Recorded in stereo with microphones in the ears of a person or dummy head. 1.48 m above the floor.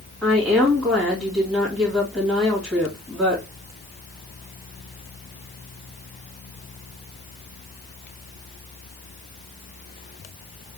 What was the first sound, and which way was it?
A woman speaking, 5° left (ahead or behind).